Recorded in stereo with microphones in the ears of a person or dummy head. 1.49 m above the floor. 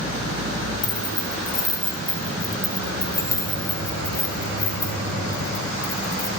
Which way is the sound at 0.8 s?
20° left (ahead or behind).